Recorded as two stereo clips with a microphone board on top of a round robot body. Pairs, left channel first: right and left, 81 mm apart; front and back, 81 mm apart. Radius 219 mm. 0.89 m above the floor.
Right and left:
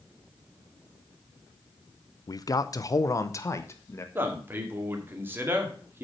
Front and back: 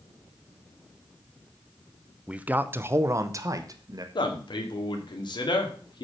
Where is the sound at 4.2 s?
25° left, 2 m.